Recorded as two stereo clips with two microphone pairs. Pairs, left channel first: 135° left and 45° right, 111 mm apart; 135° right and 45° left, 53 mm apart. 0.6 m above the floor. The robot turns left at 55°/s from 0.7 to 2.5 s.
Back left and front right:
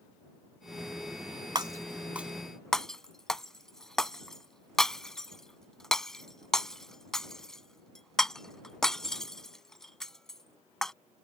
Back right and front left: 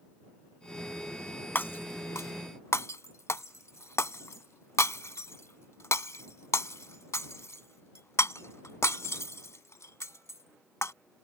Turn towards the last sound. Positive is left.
turn(degrees=-140)